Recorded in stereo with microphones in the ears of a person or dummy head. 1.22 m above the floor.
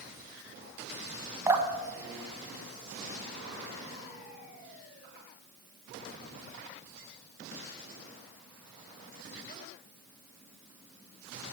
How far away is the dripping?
About 1.0 m.